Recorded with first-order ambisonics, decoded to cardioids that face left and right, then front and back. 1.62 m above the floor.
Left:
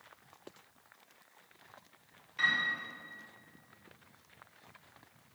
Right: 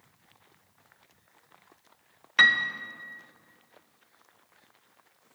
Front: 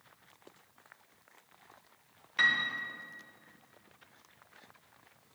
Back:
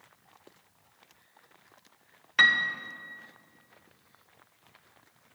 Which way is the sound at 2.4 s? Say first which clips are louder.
Right 10 dB, back 6 dB; 120° right.